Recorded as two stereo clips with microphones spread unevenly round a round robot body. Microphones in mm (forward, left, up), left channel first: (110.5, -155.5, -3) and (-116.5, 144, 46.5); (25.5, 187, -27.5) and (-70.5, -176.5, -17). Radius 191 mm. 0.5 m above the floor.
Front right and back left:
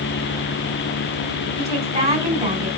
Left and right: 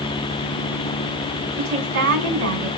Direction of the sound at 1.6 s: 160° right.